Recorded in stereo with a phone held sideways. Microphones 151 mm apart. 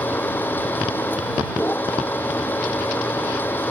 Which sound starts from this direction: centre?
A machine running, at 0.0 s.